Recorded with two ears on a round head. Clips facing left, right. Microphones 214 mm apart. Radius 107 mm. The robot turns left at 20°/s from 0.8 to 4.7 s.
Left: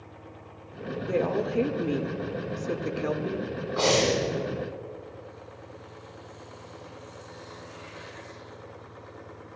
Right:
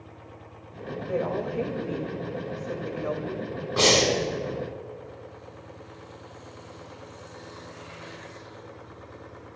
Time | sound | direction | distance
1.1 | a woman speaking | 120° left | 1.6 m
3.8 | breathing | 45° right (ahead or behind) | 4 m